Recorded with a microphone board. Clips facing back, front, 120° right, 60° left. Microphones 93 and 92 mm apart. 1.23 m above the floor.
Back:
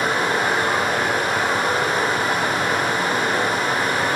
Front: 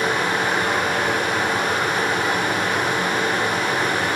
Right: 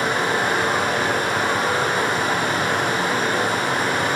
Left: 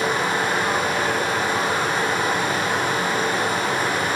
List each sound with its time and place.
0.0 s running water: 130° right, 1.9 m